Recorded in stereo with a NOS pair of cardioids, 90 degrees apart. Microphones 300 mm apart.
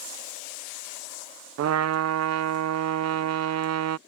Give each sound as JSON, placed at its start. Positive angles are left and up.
{"t": 1.6, "sound": "a trumpet", "azimuth_deg": -60}